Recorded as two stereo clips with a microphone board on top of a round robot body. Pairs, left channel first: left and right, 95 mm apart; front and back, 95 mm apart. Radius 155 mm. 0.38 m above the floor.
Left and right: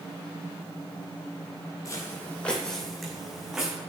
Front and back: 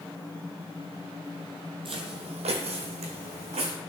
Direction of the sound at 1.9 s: 150° left.